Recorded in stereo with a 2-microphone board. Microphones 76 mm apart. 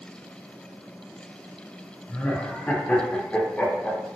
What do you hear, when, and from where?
2.1 s laughter: 20° left (ahead or behind), 0.5 m